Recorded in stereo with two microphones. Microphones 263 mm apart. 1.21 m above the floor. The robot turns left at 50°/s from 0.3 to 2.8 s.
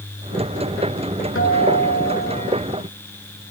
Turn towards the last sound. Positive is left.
turn(degrees=45)